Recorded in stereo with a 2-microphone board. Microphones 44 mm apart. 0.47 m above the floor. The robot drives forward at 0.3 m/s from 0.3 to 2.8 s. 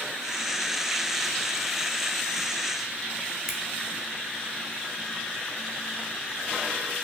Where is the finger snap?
5° right (ahead or behind), 0.7 m.